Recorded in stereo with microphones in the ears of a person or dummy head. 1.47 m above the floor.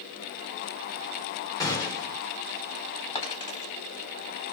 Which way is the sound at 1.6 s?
15° left (ahead or behind).